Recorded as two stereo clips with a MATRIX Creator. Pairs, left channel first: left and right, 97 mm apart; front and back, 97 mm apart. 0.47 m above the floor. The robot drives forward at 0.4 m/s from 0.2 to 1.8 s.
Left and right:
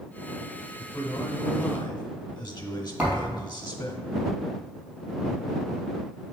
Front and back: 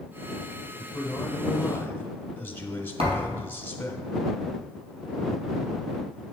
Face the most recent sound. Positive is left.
turn(degrees=-170)